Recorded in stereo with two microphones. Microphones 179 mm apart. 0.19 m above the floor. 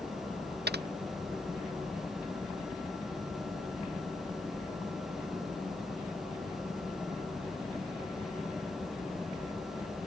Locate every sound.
0.7 s typing on a keyboard: 75° right (ahead or behind)